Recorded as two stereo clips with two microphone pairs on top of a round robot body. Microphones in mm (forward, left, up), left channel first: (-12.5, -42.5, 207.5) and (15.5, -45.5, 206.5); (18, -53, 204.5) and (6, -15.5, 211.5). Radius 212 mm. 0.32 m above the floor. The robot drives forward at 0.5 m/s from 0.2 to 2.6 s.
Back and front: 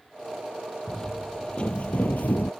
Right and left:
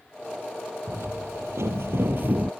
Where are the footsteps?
100° left; by 2.5 s 155° left.